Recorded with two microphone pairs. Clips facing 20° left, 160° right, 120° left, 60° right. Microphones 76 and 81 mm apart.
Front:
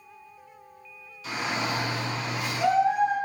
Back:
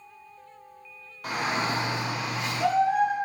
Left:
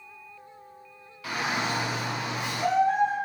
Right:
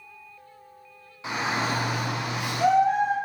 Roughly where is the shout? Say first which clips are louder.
Back 2 dB, right 2 dB; behind right.